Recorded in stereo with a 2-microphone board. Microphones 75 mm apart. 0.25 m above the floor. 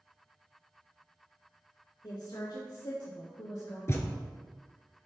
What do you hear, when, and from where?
2.0 s a woman speaking: 70° left (ahead or behind), 2.5 m; by 3.8 s 60° left (ahead or behind), 3 m
3.9 s a thud: 40° left (ahead or behind), 1.2 m